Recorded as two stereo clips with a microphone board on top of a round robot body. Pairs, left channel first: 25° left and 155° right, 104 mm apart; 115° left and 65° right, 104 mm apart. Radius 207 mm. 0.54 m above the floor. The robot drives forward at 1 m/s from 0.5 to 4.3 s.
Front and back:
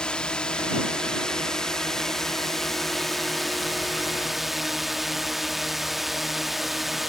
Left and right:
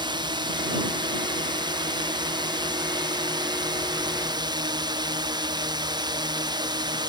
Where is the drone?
55° right; by 7.1 s 70° right.